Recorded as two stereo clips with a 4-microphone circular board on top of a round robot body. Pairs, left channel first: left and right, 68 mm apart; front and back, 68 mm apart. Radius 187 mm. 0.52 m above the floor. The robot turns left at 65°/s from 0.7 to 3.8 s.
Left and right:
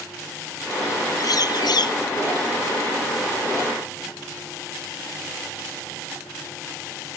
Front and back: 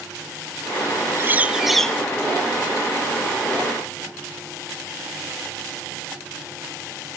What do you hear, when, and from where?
1.2 s a bird: 125° left; by 2.0 s 70° left